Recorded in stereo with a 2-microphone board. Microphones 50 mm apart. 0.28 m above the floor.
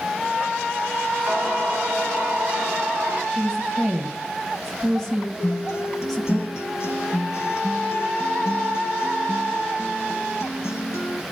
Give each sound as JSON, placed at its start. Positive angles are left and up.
{"t": 1.3, "sound": "singing", "side_deg": -25, "distance_m": 2.0}
{"t": 3.3, "sound": "a woman speaking", "side_deg": 0, "distance_m": 1.5}
{"t": 5.4, "sound": "a guitar", "side_deg": 70, "distance_m": 1.5}